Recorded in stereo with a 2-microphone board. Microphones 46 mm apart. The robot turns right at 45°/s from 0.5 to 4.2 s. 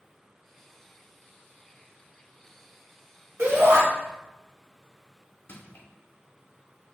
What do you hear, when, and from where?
3.4 s a shout: 55° right (ahead or behind), 2 m; by 3.8 s 65° right (ahead or behind), 2 m
5.5 s crushing: 50° left (ahead or behind), 1.2 m